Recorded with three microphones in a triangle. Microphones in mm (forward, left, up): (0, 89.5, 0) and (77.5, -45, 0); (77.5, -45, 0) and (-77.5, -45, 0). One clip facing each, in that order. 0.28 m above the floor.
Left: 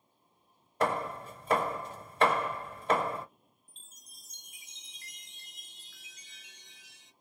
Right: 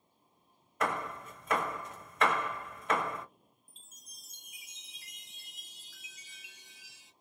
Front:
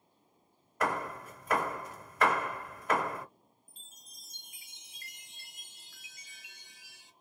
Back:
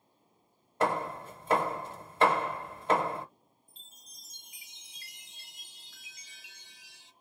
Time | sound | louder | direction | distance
0.8 | hammering | left 4 dB, back 3 dB | 145° left | 1.0 m
3.7 | a chime | even, even | 25° left | 2 m